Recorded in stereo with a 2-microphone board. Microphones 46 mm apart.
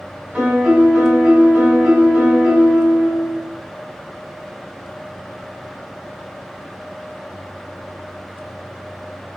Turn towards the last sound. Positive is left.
turn(degrees=-30)  # may be behind; listen again after turning